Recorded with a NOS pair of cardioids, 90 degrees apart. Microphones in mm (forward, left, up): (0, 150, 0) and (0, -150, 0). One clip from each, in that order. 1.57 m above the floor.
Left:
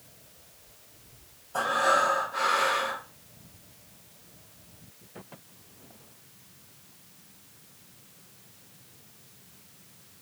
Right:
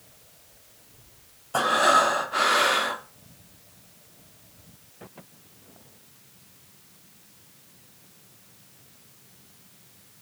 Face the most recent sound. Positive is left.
turn(degrees=-65)